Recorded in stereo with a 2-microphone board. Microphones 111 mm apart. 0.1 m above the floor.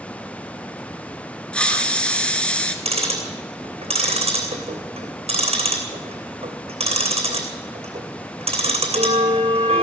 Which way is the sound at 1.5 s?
10° left (ahead or behind).